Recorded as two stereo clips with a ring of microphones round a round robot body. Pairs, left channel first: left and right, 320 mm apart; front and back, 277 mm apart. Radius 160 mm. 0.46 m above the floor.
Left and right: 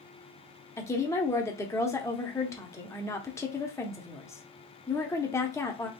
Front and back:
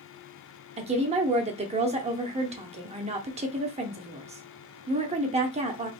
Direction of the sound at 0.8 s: 160° left.